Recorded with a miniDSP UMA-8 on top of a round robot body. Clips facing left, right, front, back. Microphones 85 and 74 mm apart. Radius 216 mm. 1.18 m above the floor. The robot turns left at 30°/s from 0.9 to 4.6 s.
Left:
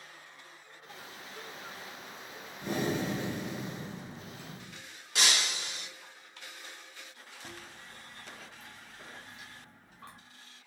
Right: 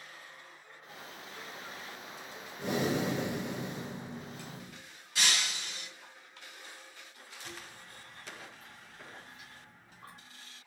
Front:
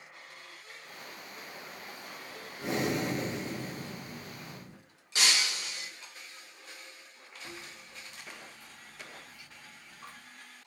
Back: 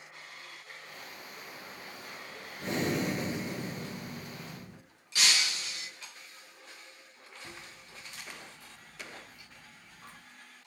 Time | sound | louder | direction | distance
2.6 | breathing | right 1 dB, even | 80° right | 1.8 m
5.2 | breaking glass | left 2 dB, even | 65° left | 1.9 m
7.4 | chewing | even, front 4 dB | 95° left | 1.6 m